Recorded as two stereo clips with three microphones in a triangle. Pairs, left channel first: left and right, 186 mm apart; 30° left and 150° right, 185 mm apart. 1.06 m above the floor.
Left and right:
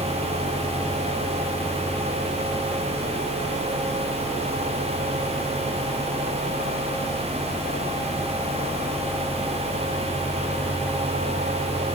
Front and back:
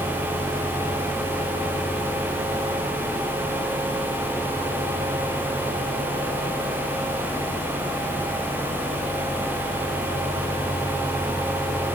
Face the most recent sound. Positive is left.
No sound to turn to.